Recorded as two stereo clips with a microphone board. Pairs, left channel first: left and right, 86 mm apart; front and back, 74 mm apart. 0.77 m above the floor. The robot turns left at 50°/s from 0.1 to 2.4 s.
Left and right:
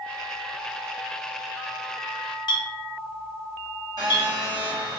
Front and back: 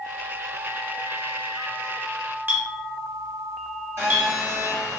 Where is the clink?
120° left, 0.6 m.